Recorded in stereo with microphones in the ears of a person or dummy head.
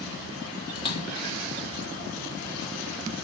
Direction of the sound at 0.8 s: 30° left (ahead or behind).